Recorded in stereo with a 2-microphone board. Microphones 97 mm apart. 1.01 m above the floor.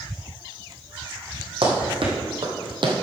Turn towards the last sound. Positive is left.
turn(degrees=-55)  # may be behind; listen again after turning